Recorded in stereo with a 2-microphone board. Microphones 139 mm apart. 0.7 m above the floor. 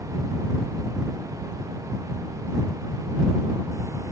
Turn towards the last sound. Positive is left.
No sound to turn to.